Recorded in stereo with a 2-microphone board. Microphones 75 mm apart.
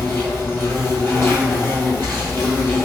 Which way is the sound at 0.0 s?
30° left (ahead or behind).